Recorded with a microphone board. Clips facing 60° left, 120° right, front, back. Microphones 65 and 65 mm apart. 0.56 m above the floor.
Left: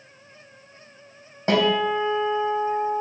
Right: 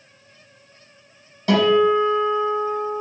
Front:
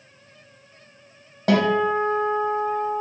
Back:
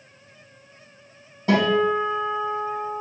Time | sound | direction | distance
1.5 | a guitar | straight ahead | 3.5 m